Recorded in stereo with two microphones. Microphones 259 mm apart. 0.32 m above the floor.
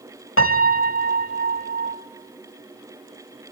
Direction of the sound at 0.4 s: 55° left (ahead or behind).